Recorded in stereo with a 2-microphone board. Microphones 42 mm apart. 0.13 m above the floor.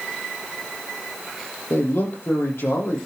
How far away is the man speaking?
About 5.5 m.